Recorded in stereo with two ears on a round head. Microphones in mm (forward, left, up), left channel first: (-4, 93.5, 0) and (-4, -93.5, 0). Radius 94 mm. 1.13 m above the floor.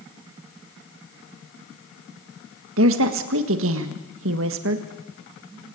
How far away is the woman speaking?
About 1.6 m.